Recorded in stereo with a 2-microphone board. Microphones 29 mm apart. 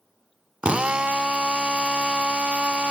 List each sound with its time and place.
0.6 s a drill: 45° right (ahead or behind), 0.5 m